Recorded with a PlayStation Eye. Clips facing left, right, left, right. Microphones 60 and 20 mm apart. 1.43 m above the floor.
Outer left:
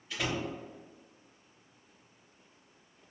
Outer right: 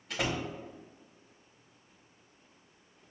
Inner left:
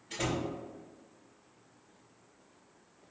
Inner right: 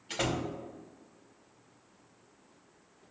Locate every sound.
0.1 s a door slam: 75° right (ahead or behind), 0.9 m